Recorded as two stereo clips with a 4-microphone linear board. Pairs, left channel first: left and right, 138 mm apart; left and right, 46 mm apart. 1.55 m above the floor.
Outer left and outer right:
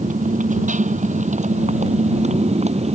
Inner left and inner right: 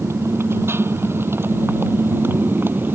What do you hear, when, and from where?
0.0 s a motorcycle: 70° right (ahead or behind); by 3.0 s 50° right (ahead or behind)